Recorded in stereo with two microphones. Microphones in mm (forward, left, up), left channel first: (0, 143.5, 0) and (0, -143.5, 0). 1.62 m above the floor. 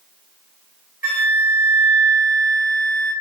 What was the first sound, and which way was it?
A flute, 30° left (ahead or behind).